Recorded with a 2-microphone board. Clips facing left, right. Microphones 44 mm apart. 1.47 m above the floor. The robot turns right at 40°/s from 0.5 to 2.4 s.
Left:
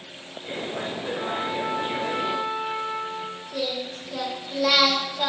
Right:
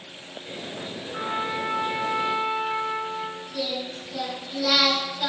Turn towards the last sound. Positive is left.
turn(degrees=65)  # may be behind; listen again after turning